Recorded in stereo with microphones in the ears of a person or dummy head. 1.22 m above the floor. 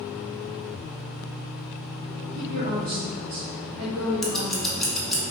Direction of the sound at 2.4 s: 45° right (ahead or behind).